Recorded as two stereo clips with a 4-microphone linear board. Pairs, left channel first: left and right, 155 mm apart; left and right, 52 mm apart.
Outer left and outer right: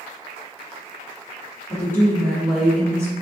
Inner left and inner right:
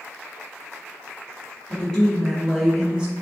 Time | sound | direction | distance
1.7 | a woman speaking | 20° left (ahead or behind) | 1.5 m